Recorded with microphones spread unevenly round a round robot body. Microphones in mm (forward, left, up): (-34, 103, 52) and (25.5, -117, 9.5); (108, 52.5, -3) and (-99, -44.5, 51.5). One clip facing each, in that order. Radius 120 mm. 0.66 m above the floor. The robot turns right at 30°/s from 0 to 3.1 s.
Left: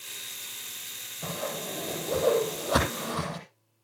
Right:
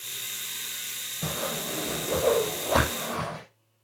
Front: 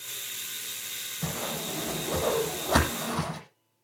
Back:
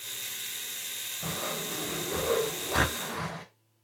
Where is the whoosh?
15° right, 9.5 m; by 3.4 s 45° left, 9.5 m.